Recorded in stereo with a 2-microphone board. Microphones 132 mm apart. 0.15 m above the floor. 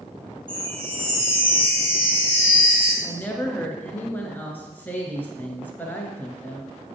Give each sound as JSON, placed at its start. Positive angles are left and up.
{"t": 0.5, "sound": "a chime", "side_deg": -40, "distance_m": 3.0}
{"t": 3.0, "sound": "a woman speaking", "side_deg": 15, "distance_m": 1.8}